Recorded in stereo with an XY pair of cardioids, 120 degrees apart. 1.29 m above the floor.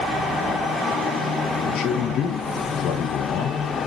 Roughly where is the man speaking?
Left.